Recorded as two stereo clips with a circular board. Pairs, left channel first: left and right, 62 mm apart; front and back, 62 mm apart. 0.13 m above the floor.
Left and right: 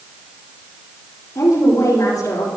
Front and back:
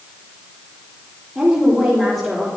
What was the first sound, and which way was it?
A woman speaking, 110° left.